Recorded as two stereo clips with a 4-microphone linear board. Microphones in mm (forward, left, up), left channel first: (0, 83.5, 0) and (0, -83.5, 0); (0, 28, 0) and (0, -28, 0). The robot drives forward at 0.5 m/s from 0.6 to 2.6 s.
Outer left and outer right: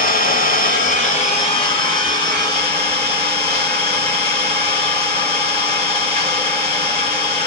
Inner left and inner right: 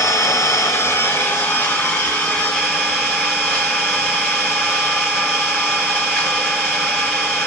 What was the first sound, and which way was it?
An engine running, 55° left (ahead or behind).